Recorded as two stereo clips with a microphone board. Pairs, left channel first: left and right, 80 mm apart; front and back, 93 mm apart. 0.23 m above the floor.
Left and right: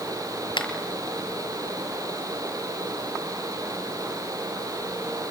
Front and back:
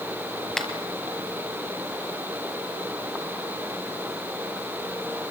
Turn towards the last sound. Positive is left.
turn(degrees=85)